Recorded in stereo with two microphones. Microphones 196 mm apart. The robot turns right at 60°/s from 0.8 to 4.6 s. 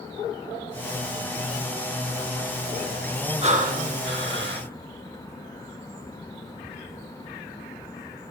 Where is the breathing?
145° right, 0.7 m; by 4.7 s 75° right, 0.7 m.